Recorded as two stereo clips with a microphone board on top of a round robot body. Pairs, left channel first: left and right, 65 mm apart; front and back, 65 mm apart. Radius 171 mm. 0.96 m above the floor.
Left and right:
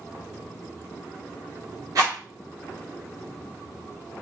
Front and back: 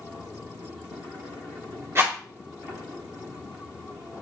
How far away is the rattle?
About 3 m.